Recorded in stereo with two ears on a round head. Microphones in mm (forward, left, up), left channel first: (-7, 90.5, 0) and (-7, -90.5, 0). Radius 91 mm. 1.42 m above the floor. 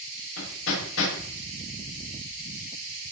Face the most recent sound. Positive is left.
turn(degrees=75)  # may be behind; listen again after turning